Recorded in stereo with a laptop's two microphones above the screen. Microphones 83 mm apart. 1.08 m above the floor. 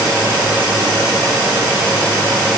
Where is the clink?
I don't hear a clink.